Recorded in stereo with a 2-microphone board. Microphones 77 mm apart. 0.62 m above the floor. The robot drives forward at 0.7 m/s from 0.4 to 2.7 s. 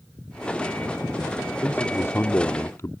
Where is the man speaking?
25° left (ahead or behind); by 2.9 s 35° left (ahead or behind).